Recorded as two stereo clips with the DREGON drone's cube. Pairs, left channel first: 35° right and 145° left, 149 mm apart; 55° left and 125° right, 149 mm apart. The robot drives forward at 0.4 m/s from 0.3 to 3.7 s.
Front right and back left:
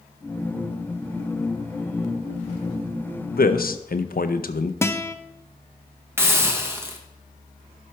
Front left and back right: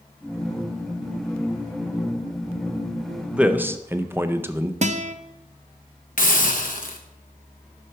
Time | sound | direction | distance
3.3 | a man speaking | 40° right | 0.7 m
4.8 | a guitar | 105° right | 0.6 m
6.2 | a hiss | 70° left | 1.1 m